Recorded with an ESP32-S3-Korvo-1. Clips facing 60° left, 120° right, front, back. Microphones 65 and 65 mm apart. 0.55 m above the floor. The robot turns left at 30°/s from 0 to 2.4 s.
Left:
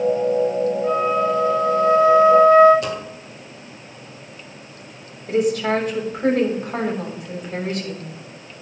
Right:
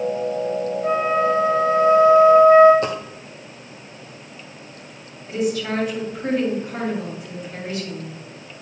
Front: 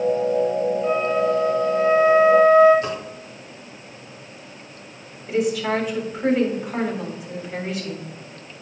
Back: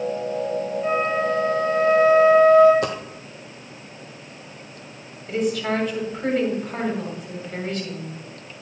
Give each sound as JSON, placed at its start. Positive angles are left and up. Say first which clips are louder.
{"t": 0.8, "sound": "a flute", "louder": "right 3 dB, back 1 dB", "azimuth_deg": -120, "distance_m": 3.5}
{"t": 2.8, "sound": "a dropped coin", "louder": "right 1 dB, back 1 dB", "azimuth_deg": -175, "distance_m": 1.7}
{"t": 5.3, "sound": "a woman speaking", "louder": "left 4 dB, front 2 dB", "azimuth_deg": 80, "distance_m": 3.5}